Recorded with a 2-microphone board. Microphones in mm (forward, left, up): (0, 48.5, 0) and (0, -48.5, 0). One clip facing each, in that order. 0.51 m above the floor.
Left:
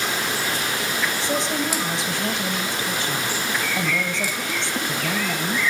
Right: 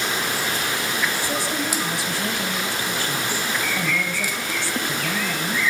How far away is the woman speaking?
About 2 m.